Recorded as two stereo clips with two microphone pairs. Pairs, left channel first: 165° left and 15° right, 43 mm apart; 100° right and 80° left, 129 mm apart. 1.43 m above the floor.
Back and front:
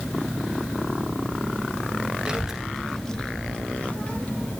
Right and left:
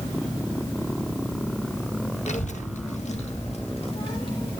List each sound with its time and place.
2.3 s a child speaking: 85° right, 1.1 m; by 4.6 s 150° right, 2 m